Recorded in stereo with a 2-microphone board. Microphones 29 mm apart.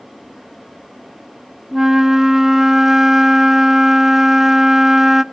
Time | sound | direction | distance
1.7 | a flute | 15° right (ahead or behind) | 0.6 m